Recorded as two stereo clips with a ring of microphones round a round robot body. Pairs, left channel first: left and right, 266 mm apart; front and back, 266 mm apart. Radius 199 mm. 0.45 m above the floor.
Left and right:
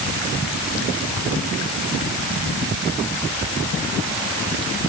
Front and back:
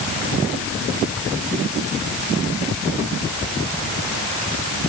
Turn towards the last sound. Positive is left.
No sound to turn to.